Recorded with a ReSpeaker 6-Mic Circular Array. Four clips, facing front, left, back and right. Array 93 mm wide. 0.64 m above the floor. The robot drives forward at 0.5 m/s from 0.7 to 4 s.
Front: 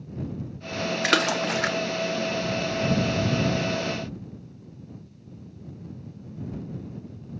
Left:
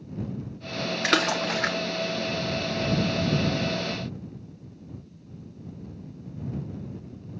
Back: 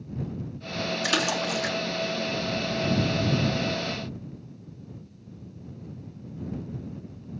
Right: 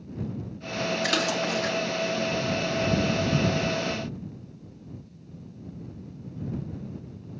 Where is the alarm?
I don't hear an alarm.